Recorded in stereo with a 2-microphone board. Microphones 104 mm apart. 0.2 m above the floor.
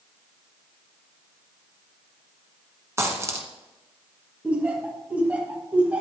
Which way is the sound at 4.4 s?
15° right (ahead or behind).